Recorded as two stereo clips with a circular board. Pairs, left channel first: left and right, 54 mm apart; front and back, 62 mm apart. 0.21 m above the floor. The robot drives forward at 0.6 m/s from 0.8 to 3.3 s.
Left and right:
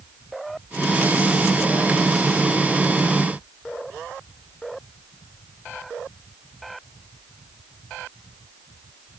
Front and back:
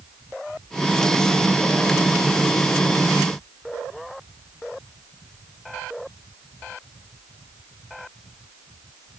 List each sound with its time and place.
Only background noise.